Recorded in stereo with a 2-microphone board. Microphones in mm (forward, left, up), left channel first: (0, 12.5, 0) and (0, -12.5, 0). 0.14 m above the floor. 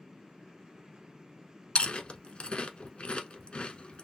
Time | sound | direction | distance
1.8 | chewing | 40° left (ahead or behind) | 0.7 m